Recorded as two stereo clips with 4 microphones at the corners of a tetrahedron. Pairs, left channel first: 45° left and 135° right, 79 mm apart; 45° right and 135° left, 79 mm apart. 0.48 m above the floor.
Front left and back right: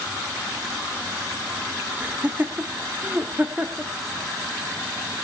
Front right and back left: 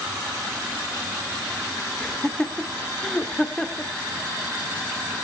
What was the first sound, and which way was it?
Laughter, 110° right.